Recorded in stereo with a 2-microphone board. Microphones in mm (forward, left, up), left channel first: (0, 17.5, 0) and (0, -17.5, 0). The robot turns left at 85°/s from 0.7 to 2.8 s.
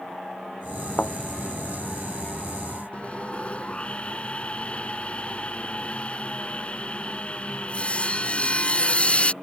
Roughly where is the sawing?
Left.